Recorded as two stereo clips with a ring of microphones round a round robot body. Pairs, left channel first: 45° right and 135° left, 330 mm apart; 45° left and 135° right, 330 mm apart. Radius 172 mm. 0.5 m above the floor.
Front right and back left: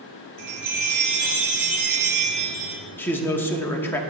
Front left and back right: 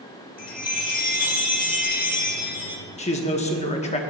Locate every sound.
0.4 s a chime: 110° left, 3 m
3.0 s a man speaking: 25° left, 1.0 m